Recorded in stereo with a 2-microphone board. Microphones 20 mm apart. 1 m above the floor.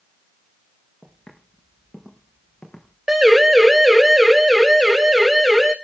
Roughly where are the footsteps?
Left.